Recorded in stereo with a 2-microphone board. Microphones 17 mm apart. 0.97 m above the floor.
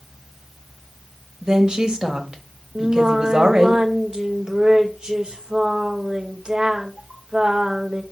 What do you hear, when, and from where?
1.4 s a woman speaking: 70° right (ahead or behind), 1.4 m
2.8 s singing: 65° right (ahead or behind), 0.9 m